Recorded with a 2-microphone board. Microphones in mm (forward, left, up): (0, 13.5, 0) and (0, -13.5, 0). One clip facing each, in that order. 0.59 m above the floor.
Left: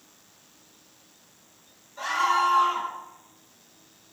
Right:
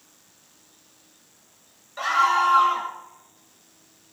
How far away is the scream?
About 3 m.